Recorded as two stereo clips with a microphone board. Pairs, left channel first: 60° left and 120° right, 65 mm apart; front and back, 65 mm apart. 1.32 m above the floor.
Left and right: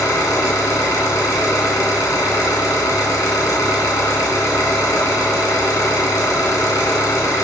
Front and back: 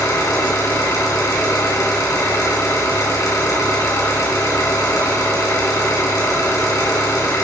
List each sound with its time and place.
0.0 s an engine running: 30° left, 3 m